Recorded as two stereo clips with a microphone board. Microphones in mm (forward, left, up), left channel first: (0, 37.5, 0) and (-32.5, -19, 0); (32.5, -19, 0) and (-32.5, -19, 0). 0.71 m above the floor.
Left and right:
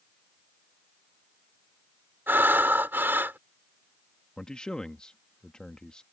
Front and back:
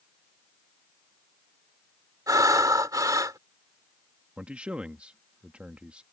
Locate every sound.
2.3 s breathing: 175° right
4.4 s a man speaking: 125° left